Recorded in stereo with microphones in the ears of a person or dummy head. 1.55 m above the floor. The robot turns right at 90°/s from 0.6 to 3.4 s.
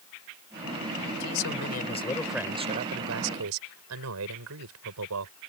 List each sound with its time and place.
1.2 s a man speaking: 80° left; by 5.3 s 80° right